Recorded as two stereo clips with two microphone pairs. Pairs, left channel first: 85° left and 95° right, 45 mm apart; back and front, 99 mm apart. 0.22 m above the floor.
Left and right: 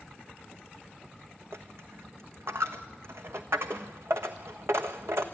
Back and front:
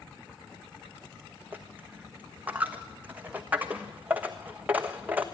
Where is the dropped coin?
75° right, 1.1 m.